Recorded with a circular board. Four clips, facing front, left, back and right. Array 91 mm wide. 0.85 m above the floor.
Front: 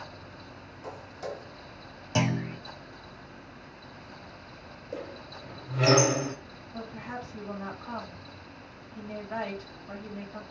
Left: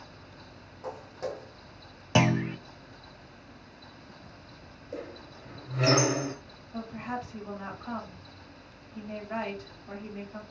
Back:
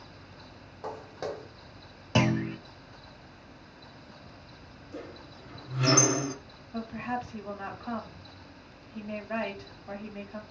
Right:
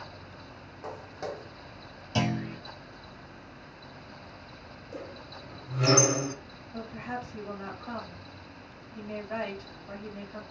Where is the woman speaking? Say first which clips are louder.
Left 1 dB, back 5 dB; 170° left, 2 m.